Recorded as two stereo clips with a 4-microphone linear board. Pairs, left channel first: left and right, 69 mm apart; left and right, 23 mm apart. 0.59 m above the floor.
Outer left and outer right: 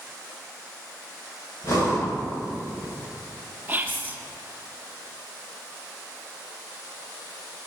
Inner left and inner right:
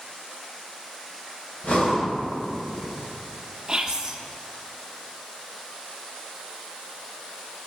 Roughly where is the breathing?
Left.